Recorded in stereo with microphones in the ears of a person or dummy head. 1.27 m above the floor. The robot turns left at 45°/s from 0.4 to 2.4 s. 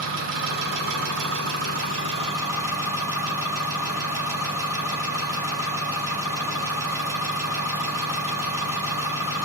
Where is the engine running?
80° right, 1.6 m; by 9.5 s 170° right, 1.6 m.